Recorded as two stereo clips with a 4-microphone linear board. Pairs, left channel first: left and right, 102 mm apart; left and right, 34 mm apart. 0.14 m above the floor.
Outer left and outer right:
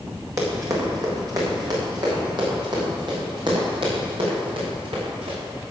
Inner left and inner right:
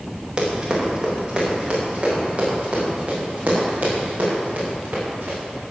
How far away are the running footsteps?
About 5.5 m.